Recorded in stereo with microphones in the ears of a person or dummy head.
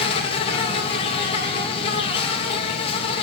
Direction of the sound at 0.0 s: 30° left (ahead or behind).